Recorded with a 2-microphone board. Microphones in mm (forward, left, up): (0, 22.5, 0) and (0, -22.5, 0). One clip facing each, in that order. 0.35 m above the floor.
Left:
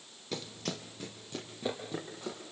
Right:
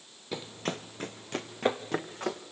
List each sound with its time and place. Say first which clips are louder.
0.3 s running footsteps: right 4 dB; 15° right (ahead or behind), 1.0 m; by 2.4 s 70° right (ahead or behind), 3 m